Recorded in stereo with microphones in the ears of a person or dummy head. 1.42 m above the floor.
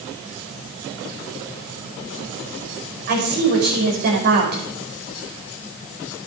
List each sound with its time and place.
3.1 s a woman speaking: 50° right (ahead or behind), 5.5 m